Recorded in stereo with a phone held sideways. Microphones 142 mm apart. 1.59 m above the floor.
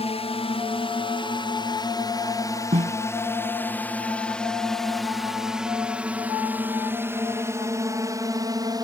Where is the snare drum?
55° right (ahead or behind).